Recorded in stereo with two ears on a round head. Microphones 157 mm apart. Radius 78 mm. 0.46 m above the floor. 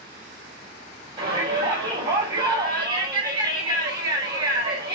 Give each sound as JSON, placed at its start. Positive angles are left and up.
{"t": 1.2, "sound": "a shout", "side_deg": -30, "distance_m": 2.5}